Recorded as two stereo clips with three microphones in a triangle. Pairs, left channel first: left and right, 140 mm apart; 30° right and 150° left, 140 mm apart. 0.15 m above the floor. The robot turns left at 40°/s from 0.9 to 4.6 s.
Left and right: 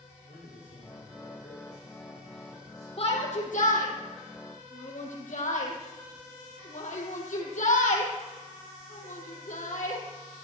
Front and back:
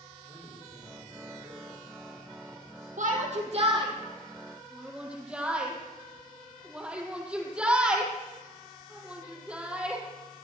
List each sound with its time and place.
0.2 s a man speaking: 105° left, 10 m; by 2.9 s 25° left, 10 m
3.0 s a shout: 135° left, 4.5 m; by 10.0 s 70° left, 4.5 m